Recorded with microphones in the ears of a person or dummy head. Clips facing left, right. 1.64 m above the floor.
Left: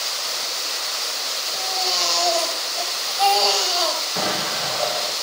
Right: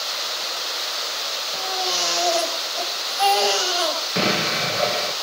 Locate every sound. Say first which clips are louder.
1.5 s a baby crying: even; 15° right (ahead or behind), 4 m
4.2 s an explosion: right 6 dB; 35° right (ahead or behind), 1.6 m